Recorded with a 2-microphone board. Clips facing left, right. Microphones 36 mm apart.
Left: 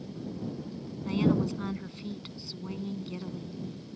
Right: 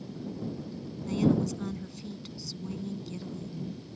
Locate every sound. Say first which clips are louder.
1.1 s a woman speaking: even; 25° left (ahead or behind)